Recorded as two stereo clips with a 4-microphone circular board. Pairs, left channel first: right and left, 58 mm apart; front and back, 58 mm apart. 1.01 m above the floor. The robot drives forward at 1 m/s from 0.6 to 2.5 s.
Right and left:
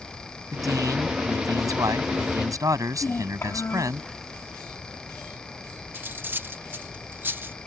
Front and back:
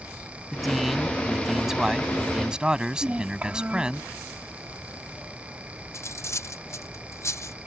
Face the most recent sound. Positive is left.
turn(degrees=35)